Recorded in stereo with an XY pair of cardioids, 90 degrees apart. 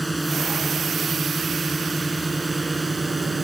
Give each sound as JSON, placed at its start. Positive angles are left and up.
{"t": 0.0, "sound": "a drone", "azimuth_deg": -10}